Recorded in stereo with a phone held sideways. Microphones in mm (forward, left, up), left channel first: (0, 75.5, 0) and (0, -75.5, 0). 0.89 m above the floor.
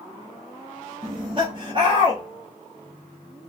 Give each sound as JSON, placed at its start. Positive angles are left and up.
{"t": 1.0, "sound": "laughter", "side_deg": -35, "distance_m": 0.6}